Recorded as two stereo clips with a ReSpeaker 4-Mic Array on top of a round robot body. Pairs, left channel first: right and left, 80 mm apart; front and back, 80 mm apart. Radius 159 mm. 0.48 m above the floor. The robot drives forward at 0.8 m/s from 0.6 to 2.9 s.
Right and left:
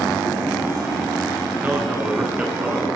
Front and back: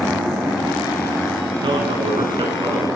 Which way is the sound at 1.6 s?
165° left.